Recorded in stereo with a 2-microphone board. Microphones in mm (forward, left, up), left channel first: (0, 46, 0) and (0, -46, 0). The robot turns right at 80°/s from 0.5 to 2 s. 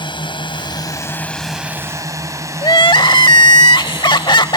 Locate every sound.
0.0 s a drone: 60° left (ahead or behind); by 4.6 s 30° right (ahead or behind)
2.6 s crying: 60° left (ahead or behind)